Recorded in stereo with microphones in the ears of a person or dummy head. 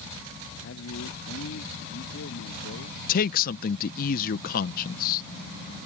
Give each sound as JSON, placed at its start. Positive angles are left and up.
{"t": 0.6, "sound": "a man speaking", "side_deg": 70}
{"t": 3.1, "sound": "a man speaking", "side_deg": 45}